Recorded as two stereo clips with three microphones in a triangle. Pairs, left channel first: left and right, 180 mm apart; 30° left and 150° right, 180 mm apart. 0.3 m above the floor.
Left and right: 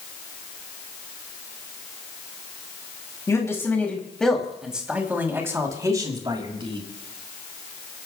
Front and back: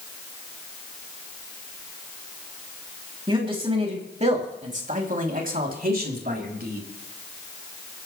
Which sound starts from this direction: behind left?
A man speaking, at 3.3 s.